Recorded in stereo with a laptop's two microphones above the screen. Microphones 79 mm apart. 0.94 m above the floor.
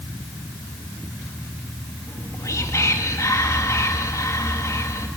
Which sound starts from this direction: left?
Whispering, at 2.1 s.